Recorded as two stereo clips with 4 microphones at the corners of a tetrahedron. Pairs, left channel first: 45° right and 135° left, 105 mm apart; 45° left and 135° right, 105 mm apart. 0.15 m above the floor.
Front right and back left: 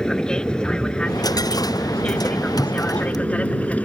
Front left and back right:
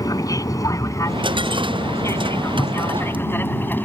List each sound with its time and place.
0.0 s an aircraft: 35° left; by 3.8 s 10° left
1.1 s a dropped coin: 100° right